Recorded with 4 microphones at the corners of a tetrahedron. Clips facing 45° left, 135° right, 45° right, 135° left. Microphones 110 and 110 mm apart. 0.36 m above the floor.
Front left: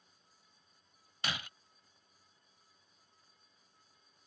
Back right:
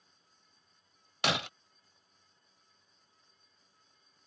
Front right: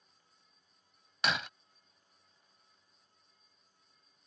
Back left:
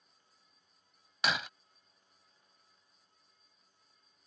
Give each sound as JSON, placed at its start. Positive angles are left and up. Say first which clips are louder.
{"t": 1.2, "sound": "breaking glass", "louder": "back right 9 dB, even", "azimuth_deg": -135}